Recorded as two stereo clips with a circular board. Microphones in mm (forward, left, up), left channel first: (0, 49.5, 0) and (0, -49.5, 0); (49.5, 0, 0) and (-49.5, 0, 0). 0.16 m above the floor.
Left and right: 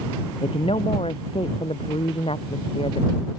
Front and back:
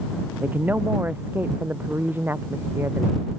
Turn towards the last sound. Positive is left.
turn(degrees=115)